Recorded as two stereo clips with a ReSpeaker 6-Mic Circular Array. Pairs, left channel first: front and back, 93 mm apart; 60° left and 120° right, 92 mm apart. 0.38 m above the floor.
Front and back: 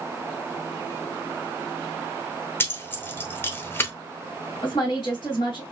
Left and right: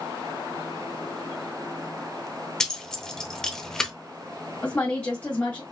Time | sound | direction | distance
2.6 | keys jangling | 10° right | 0.7 m
4.6 | a woman speaking | 5° right | 1.5 m